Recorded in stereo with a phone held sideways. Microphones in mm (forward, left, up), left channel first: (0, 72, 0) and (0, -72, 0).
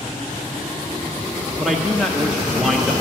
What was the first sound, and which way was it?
A man speaking, centre (ahead or behind).